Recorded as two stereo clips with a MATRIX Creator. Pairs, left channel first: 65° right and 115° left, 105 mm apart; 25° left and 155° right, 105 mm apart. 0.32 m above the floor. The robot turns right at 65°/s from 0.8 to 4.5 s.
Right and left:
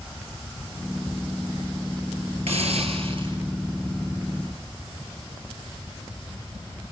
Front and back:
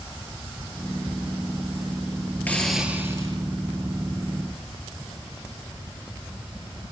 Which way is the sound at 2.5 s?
95° left.